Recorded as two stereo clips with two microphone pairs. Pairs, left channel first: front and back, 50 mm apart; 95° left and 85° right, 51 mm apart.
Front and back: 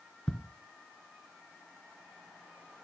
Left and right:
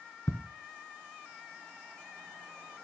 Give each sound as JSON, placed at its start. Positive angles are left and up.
{"t": 0.3, "sound": "ticking", "azimuth_deg": 85, "distance_m": 1.9}